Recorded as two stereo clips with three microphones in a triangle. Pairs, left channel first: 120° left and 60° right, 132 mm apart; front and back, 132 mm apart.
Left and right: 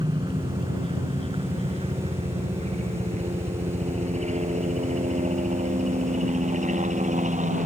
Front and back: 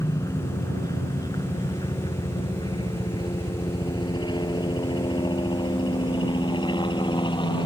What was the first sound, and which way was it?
A helicopter, 45° right.